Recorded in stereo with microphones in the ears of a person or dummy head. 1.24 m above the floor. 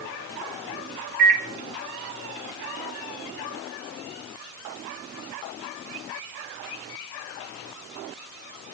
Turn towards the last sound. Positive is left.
turn(degrees=-55)  # may be behind; listen again after turning